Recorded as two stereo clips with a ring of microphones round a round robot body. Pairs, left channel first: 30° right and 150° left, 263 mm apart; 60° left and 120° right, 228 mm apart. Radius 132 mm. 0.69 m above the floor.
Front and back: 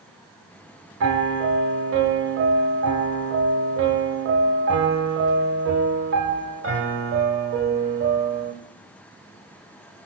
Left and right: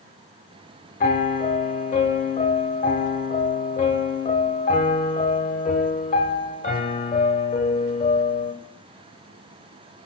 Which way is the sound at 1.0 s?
110° left.